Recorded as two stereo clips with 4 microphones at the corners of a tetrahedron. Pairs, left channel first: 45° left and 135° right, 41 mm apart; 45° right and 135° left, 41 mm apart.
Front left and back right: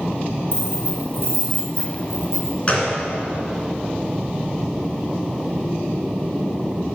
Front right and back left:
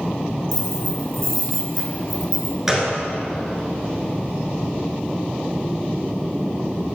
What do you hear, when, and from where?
0.5 s keys jangling: 40° left, 3 m; by 2.6 s 45° left, 4 m
2.7 s a gunshot: 60° left, 1.9 m